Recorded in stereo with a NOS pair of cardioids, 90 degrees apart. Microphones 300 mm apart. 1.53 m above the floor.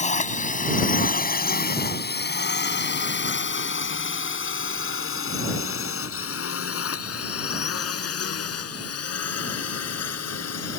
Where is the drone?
25° left; by 10.8 s 55° left.